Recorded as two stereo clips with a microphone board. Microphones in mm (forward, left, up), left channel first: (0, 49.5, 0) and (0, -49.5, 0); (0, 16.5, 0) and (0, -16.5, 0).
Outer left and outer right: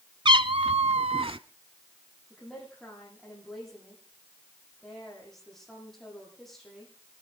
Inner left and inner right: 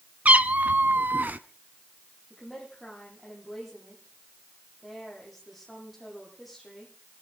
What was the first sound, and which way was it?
A cat meowing, 50° right (ahead or behind).